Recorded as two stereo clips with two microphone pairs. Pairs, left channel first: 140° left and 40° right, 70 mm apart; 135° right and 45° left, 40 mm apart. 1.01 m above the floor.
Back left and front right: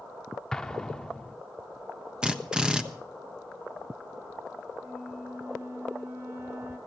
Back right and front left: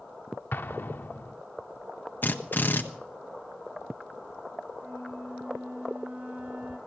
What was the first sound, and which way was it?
An explosion, 140° right.